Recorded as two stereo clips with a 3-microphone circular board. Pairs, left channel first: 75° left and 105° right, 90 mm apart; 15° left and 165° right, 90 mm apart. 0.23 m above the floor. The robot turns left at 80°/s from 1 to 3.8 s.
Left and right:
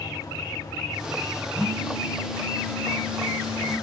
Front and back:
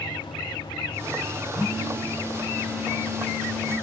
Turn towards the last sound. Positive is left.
turn(degrees=40)